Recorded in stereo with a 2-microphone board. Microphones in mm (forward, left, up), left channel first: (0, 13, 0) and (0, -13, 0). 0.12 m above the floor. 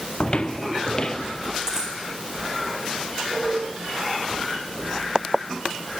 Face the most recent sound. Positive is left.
turn(degrees=-20)  # may be behind; listen again after turning